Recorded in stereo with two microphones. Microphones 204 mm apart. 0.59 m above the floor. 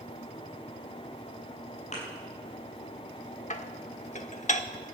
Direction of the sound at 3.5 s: 35° left (ahead or behind).